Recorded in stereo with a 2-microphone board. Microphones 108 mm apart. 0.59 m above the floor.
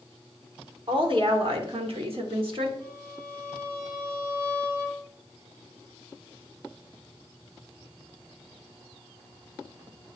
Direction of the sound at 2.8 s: 35° right (ahead or behind).